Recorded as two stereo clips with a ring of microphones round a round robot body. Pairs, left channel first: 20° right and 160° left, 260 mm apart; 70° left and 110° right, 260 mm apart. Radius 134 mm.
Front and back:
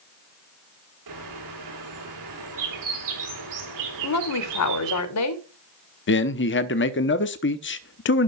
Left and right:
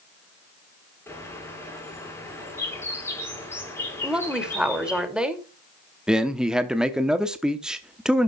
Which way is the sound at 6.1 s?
25° right.